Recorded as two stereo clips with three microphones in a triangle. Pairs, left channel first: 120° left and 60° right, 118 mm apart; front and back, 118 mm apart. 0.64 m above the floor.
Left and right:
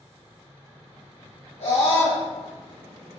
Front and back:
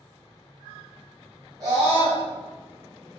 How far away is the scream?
About 4 m.